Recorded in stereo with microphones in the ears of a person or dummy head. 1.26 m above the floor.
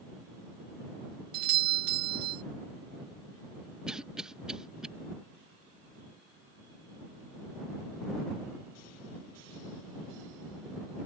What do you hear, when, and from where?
1.3 s a doorbell: 45° right (ahead or behind)
3.9 s a cough: centre (ahead or behind)